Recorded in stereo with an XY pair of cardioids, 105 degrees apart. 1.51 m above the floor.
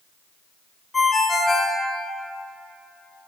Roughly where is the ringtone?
Ahead left.